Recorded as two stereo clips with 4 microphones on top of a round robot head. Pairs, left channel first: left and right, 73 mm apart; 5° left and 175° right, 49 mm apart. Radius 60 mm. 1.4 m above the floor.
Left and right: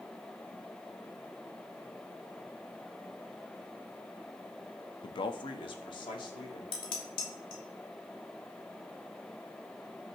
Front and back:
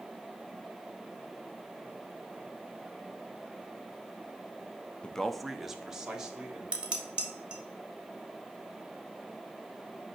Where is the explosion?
No explosion in this recording.